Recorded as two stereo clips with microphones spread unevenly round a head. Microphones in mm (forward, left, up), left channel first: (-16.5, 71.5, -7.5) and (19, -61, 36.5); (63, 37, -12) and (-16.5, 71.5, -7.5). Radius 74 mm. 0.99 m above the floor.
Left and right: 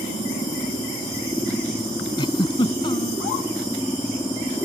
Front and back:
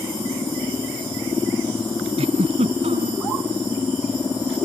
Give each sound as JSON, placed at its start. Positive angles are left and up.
{"t": 2.2, "sound": "a giggle", "azimuth_deg": 170}